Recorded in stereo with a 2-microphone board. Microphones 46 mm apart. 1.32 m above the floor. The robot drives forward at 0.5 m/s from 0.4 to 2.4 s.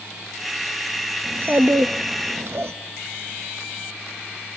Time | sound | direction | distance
1.2 | a child speaking | 40° right (ahead or behind) | 1.3 m